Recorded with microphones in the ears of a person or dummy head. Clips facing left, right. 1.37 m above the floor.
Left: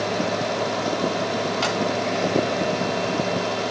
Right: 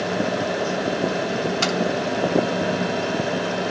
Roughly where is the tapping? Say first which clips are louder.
Right 1 dB; right.